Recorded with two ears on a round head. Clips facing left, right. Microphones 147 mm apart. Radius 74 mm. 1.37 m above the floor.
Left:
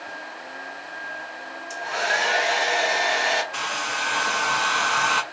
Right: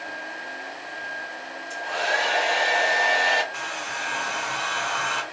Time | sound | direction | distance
1.7 | a hair dryer | 55° left (ahead or behind) | 3 m
3.5 | a hair dryer | 75° left (ahead or behind) | 0.8 m